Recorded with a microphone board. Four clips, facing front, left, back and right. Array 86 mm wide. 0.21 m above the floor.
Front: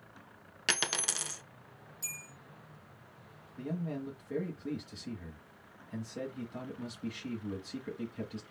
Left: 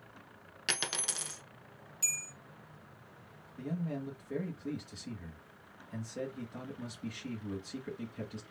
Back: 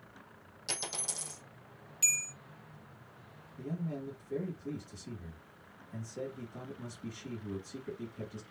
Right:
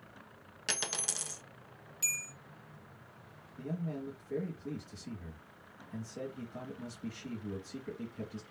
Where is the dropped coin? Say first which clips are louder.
Left 1 dB, front 7 dB; 10° left, 0.7 m.